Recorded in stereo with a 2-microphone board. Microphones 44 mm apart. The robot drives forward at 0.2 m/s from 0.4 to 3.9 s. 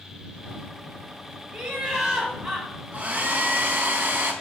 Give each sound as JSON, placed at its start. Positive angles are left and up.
{"t": 1.5, "sound": "laughter", "side_deg": -10, "distance_m": 1.0}
{"t": 2.9, "sound": "a hair dryer", "side_deg": -40, "distance_m": 0.6}